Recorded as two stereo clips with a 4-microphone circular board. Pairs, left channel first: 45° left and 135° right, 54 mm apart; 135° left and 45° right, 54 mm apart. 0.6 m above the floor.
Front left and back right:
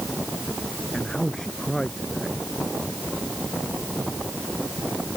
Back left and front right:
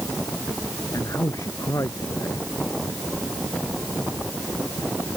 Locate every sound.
0.9 s a man speaking: 125° left